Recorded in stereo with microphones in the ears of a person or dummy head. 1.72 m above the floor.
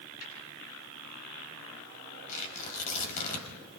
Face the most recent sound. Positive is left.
turn(degrees=45)  # may be behind; listen again after turning